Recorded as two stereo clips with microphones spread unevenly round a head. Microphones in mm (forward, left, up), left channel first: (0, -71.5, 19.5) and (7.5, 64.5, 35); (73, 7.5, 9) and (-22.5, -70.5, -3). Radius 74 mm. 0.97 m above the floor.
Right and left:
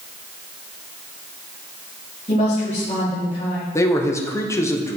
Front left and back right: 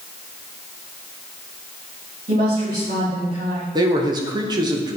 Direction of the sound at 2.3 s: 135° right.